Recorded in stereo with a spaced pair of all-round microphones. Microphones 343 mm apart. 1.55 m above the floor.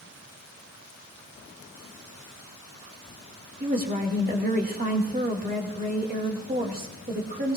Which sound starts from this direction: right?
A woman speaking, at 3.6 s.